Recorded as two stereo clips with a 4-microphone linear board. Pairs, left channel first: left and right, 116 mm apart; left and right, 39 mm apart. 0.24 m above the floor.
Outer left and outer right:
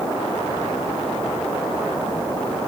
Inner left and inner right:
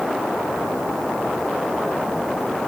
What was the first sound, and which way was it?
Only background noise.